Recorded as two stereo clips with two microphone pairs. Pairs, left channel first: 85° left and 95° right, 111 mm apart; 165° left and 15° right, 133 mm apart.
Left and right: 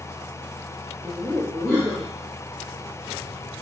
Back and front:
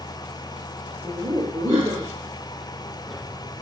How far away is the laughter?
About 1.4 m.